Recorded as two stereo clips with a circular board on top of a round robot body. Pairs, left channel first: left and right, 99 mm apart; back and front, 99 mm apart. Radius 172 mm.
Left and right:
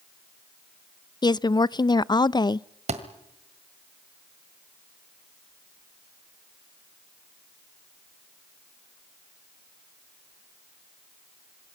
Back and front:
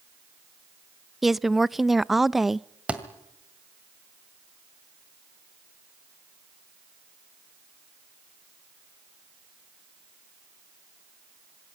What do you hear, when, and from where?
1.2 s a woman speaking: 85° left, 0.6 m
2.9 s a thud: 80° right, 1.8 m